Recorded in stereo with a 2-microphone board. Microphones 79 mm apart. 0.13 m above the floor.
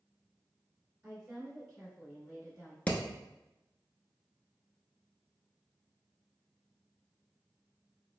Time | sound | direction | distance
1.0 | a woman speaking | 10° right (ahead or behind) | 1.6 m
2.9 | hammering | 15° left (ahead or behind) | 0.6 m